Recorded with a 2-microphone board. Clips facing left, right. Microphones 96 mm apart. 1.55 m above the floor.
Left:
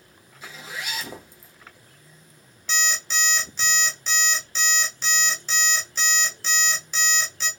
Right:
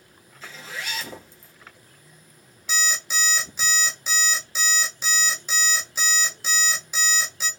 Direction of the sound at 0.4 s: 15° left (ahead or behind).